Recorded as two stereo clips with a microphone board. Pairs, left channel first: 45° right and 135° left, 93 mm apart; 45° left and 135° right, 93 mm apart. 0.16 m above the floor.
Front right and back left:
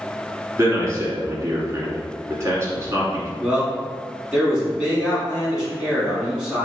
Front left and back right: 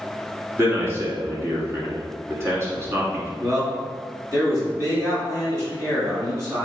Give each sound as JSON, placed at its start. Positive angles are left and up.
{"t": 0.6, "sound": "a man speaking", "azimuth_deg": 180, "distance_m": 1.4}
{"t": 3.4, "sound": "a man speaking", "azimuth_deg": -150, "distance_m": 1.7}